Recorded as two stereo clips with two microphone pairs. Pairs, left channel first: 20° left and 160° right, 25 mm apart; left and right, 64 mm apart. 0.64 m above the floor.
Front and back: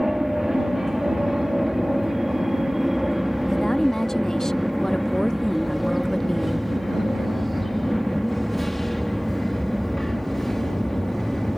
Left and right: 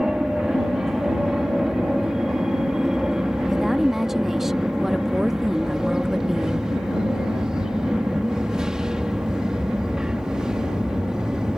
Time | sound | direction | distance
0.0 | an aircraft | 155° right | ?
3.5 | a woman speaking | 20° right | ?